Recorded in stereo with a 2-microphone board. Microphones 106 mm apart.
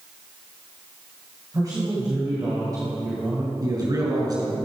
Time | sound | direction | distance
1.5 | a man speaking | 40° right (ahead or behind) | 2.5 m
3.6 | a man speaking | 35° right (ahead or behind) | 3.5 m